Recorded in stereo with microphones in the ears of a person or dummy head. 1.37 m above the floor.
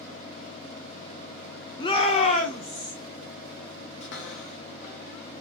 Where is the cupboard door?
50° left (ahead or behind), 1.1 m.